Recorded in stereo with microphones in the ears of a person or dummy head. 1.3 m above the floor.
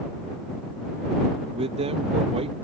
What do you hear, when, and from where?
1.5 s a man speaking: 30° right (ahead or behind)